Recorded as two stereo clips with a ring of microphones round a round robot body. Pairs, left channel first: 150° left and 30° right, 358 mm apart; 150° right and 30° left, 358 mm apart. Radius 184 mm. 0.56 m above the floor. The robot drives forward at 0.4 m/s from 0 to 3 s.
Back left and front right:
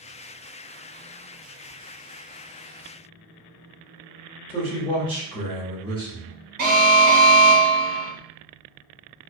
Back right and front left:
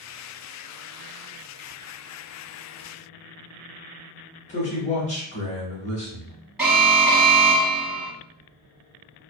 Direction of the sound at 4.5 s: 170° right.